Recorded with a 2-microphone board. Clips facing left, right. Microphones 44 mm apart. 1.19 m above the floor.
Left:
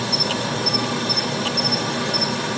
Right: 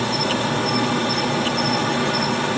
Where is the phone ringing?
I don't hear a phone ringing.